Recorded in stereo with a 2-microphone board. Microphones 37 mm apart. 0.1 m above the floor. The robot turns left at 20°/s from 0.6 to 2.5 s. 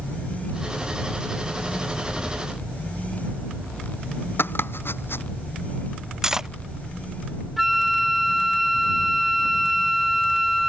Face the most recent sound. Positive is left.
turn(degrees=0)  # may be behind; listen again after turning